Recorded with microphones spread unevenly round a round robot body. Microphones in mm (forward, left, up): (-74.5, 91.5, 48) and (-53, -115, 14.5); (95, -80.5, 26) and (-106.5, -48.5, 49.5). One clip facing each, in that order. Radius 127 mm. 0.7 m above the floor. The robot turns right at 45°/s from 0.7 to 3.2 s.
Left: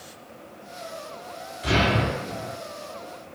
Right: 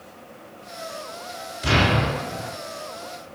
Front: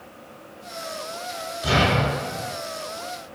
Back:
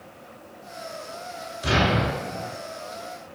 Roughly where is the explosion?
Behind right.